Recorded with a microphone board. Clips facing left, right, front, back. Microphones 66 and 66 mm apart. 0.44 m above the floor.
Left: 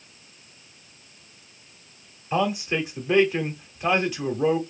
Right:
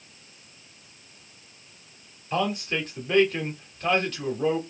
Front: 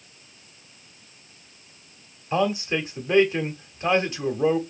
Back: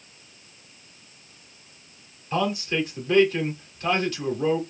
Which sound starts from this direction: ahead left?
A man speaking, at 2.3 s.